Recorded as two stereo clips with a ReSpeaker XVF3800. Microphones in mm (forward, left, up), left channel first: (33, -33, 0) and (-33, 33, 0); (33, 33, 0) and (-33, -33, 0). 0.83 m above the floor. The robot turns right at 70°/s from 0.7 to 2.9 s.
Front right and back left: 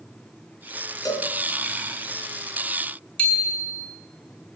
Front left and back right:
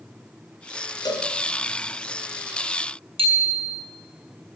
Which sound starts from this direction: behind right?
A bicycle bell, at 3.2 s.